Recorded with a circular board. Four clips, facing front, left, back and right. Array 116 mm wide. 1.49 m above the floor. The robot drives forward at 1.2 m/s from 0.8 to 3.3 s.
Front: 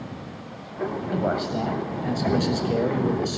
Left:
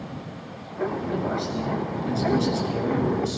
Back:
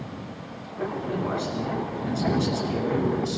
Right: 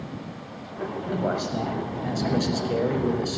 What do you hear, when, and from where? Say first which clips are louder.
1.1 s a man speaking: even, front 5 dB; 35° right, 8 m; by 3.4 s 45° right, 6 m